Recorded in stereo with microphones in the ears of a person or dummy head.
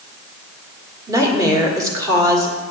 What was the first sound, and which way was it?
A woman speaking, 15° right (ahead or behind).